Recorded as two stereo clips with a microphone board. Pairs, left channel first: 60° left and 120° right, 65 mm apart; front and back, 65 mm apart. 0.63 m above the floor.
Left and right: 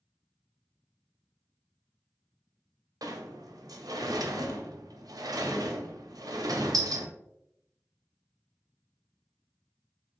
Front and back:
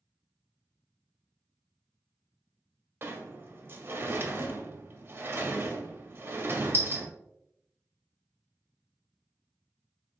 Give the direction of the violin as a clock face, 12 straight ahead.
No violin in this recording.